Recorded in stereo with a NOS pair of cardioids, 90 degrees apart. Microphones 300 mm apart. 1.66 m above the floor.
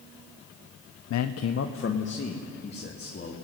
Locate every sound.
1.1 s a man speaking: 65° left, 0.9 m; by 3.4 s 30° left, 4 m